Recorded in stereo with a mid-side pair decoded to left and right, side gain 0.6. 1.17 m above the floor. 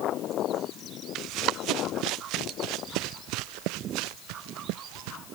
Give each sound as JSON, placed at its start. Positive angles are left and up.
{"t": 1.1, "sound": "running footsteps", "azimuth_deg": -65}